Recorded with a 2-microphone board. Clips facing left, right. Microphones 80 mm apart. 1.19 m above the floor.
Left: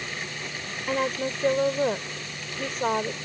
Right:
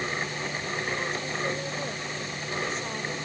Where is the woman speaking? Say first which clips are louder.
Left 10 dB; 55° left (ahead or behind).